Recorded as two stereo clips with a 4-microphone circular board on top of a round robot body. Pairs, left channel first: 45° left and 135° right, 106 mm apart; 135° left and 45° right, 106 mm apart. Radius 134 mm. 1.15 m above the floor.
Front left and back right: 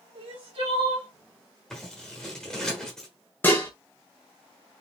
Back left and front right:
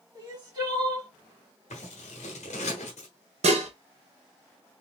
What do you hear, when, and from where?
0.1 s crying: 100° right, 1.9 m
1.7 s scissors: 130° left, 0.9 m
3.4 s dishes clattering: 25° right, 0.5 m